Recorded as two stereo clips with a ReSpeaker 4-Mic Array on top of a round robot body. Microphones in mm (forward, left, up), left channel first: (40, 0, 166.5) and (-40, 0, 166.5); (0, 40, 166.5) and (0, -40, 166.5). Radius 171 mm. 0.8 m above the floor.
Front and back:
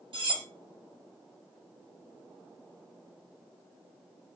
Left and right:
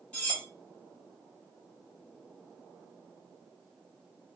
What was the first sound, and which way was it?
Cutlery clinking, 165° left.